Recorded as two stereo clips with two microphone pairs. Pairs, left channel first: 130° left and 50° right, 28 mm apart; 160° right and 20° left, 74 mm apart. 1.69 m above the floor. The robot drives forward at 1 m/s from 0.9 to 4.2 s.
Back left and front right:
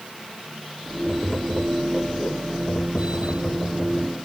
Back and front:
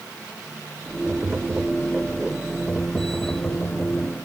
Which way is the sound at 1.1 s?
80° left.